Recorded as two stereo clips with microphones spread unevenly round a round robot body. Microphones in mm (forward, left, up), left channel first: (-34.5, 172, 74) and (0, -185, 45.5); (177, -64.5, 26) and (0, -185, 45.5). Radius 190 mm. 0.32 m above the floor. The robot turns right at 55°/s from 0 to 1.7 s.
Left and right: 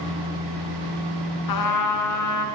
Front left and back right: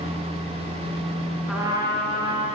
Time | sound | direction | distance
1.5 | a trumpet | 125° left | 3.5 m